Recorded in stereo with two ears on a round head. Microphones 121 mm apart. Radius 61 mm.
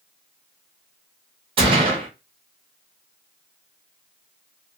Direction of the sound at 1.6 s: 45° right (ahead or behind).